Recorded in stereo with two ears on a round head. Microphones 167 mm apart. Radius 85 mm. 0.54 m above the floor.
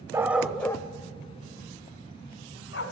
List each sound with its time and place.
0.1 s a dog barking: 15° right (ahead or behind), 1.2 m; by 2.8 s 80° left, 2.5 m